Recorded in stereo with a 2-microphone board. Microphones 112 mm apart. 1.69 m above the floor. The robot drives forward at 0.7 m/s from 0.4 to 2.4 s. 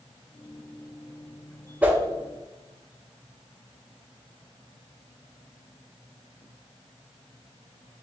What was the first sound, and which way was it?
A whoosh, 15° right (ahead or behind).